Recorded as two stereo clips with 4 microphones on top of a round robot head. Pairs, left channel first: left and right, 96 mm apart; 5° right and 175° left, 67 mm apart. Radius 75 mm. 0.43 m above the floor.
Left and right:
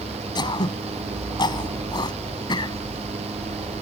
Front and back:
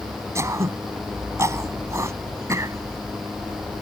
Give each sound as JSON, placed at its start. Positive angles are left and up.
{"t": 0.3, "sound": "throat clearing", "azimuth_deg": 135}